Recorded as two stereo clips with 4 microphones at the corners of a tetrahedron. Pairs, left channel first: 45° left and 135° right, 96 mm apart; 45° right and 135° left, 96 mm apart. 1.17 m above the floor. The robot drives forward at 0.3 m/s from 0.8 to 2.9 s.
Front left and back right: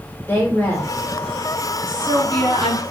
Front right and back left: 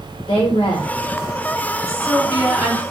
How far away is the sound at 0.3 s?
About 1.1 m.